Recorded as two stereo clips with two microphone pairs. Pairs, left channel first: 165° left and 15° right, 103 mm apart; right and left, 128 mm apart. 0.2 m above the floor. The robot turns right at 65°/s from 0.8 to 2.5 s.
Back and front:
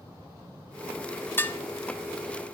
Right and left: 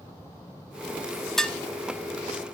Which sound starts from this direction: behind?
Dishes clattering, at 1.4 s.